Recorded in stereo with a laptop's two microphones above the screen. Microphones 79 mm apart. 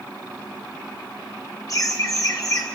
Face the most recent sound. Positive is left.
turn(degrees=45)  # may be behind; listen again after turning